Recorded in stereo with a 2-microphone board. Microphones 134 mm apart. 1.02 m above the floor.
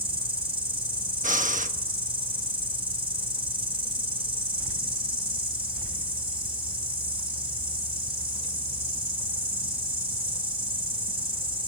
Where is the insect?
45° right (ahead or behind), 4 m.